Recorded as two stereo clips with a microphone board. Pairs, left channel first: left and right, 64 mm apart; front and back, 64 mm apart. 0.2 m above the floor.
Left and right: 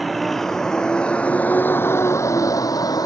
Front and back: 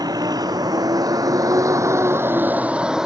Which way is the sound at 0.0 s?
Straight behind.